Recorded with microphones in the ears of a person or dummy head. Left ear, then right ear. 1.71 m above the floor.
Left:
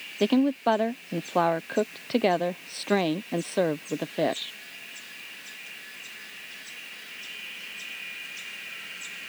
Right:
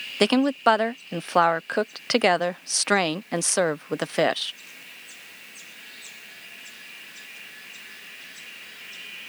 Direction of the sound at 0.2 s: 55° right (ahead or behind).